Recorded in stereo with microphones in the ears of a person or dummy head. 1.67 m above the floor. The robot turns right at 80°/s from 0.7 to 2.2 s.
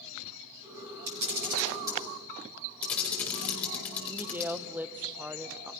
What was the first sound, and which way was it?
A camera shutter, 80° right.